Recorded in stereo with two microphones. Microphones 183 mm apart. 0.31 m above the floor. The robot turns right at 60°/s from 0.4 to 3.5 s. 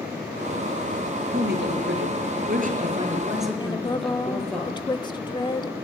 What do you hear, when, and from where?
1.3 s a man speaking: 130° right, 5.5 m; by 4.6 s 5° left, 5.5 m
3.6 s a woman speaking: 25° left (ahead or behind), 0.9 m